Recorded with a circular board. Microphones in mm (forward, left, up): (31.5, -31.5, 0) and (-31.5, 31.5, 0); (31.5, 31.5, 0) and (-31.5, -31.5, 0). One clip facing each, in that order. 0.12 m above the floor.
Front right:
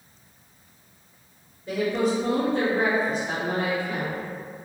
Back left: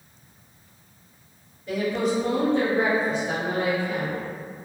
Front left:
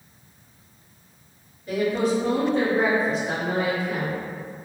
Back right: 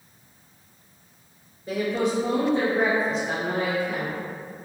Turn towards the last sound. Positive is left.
turn(degrees=-25)